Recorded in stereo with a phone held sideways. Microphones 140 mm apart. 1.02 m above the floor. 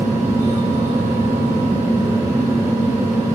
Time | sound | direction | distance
0.0 | a fan | 20° right (ahead or behind) | 0.8 m